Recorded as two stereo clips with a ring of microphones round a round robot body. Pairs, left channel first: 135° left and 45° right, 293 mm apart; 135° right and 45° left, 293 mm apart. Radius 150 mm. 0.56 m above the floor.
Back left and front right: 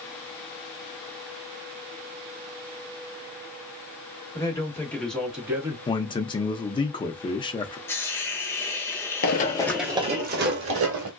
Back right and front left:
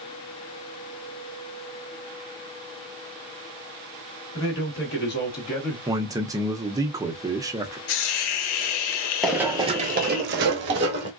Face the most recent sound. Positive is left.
turn(degrees=-5)